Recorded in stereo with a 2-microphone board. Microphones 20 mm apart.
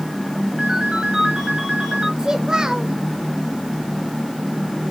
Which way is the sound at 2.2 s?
30° right (ahead or behind).